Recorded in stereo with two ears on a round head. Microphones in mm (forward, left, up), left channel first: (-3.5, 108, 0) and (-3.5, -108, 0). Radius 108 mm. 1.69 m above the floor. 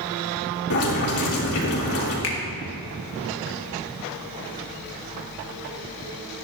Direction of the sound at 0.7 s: 70° left (ahead or behind).